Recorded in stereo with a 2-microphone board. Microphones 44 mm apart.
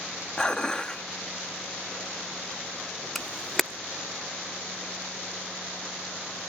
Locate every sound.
0.4 s dishes clattering: 15° left (ahead or behind), 1.1 m
3.1 s a camera shutter: 5° left (ahead or behind), 0.7 m